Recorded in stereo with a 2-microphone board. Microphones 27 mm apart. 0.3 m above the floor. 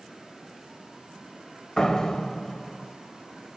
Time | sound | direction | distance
1.8 | a door slam | 25° left (ahead or behind) | 0.7 m